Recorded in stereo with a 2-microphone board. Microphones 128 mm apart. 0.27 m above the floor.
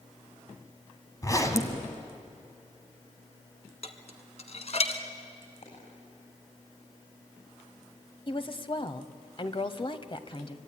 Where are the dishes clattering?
55° left (ahead or behind), 1.6 m.